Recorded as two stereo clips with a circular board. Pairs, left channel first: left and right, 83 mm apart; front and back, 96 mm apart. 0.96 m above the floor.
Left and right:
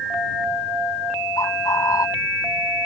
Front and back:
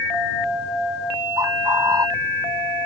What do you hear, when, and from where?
1.4 s a bird: 130° left